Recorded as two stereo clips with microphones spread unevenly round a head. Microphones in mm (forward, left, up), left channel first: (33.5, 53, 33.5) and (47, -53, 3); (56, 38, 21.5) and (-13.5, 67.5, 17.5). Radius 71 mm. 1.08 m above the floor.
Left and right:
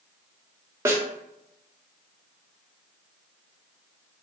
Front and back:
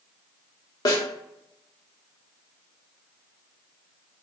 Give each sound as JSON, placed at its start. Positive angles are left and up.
{"t": 0.8, "sound": "a snare drum", "azimuth_deg": -5, "distance_m": 0.7}